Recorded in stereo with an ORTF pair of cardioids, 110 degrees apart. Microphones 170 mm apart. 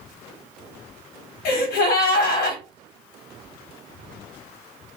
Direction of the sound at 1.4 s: 65° left.